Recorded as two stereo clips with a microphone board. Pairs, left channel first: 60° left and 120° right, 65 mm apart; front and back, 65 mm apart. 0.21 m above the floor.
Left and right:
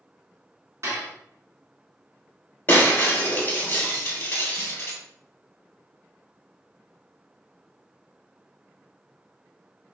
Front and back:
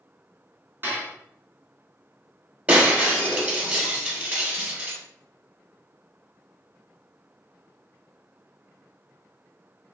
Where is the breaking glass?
110° left, 1.3 m.